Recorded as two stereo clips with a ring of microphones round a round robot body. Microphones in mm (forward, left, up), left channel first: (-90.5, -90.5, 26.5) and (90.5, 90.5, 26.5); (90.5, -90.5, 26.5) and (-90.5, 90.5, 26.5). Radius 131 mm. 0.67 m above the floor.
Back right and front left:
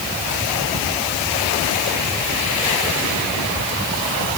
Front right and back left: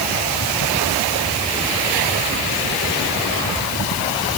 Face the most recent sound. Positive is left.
No sound to turn to.